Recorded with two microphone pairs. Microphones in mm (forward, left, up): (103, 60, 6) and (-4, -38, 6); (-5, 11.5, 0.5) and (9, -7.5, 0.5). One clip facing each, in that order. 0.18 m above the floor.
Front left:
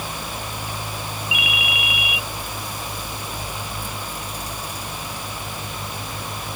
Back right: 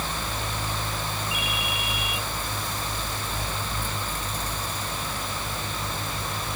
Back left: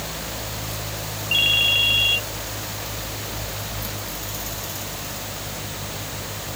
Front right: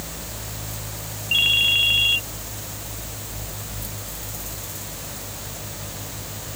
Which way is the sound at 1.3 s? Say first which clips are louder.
Front left 2 dB, even; 35° left.